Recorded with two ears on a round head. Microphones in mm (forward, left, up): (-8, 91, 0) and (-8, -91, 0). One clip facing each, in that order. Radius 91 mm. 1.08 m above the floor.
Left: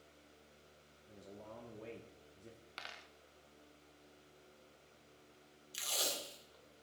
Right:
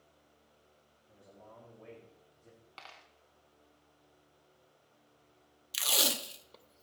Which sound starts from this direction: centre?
A dropped coin, at 2.8 s.